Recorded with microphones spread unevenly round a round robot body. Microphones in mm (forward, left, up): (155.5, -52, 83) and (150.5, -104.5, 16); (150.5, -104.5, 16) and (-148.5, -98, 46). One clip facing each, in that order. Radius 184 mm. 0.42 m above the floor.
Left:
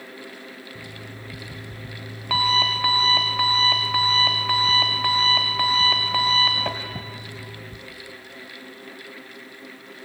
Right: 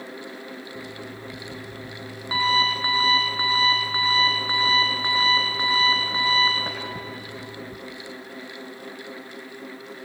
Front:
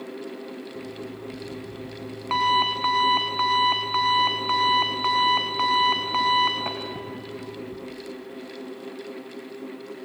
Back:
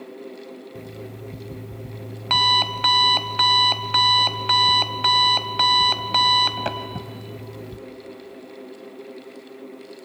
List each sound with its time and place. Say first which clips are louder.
0.8 s an alarm clock: right 3 dB, front 2 dB; 130° left, 0.9 m